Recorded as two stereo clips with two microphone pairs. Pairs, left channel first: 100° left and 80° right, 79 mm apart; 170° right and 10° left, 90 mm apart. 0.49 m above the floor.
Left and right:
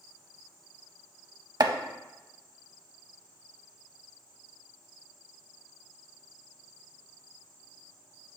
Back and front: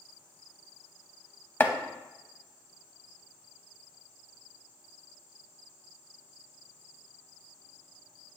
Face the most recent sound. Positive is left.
turn(degrees=-105)